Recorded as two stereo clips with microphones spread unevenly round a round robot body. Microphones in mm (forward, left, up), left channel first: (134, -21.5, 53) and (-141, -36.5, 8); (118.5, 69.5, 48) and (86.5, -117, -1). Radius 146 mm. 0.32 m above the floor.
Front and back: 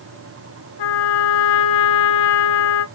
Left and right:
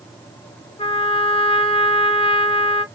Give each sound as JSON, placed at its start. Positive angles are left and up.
{"t": 0.8, "sound": "a trumpet", "azimuth_deg": 20, "distance_m": 0.8}